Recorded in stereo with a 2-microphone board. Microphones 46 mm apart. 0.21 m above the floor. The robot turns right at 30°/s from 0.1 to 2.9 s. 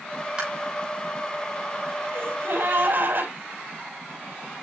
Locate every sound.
0.4 s tapping: 25° right (ahead or behind), 8.5 m; by 0.5 s 30° right (ahead or behind), 8.5 m
2.1 s a gasp: 65° right (ahead or behind), 7.5 m; by 3.3 s 45° right (ahead or behind), 7.5 m